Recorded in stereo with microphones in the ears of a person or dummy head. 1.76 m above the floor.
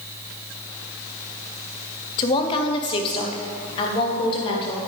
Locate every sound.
2.2 s a woman speaking: 30° left (ahead or behind), 0.7 m